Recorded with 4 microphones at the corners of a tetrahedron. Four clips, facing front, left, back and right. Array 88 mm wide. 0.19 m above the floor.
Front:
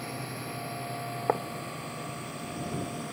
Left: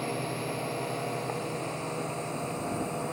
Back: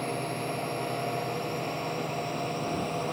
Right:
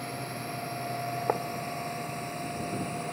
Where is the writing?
35° right.